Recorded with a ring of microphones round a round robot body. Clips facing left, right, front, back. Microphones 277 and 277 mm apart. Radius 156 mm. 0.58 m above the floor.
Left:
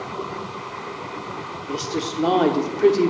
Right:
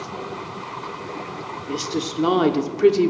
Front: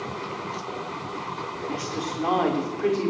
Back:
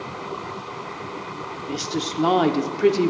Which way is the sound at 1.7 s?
165° right.